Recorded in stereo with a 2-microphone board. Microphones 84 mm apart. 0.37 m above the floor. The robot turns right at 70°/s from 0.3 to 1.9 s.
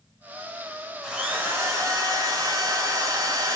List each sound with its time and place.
1.0 s a drill: 170° right, 1.5 m; by 3.6 s 110° right, 1.5 m